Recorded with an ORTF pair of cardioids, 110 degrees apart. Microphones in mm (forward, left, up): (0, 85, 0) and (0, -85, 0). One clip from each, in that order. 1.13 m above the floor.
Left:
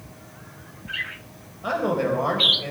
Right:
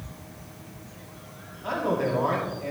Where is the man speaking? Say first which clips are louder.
Left 3 dB; 65° left, 4.5 m.